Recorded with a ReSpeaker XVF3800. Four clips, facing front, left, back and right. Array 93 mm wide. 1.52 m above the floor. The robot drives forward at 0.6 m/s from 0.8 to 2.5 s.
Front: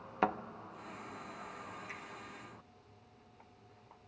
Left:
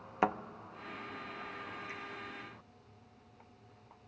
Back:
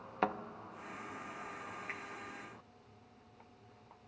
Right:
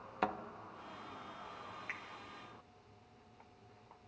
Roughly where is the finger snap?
Behind right.